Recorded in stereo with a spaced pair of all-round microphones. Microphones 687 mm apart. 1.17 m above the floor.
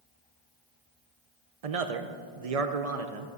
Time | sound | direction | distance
1.6 | a man speaking | 55° right (ahead or behind) | 0.6 m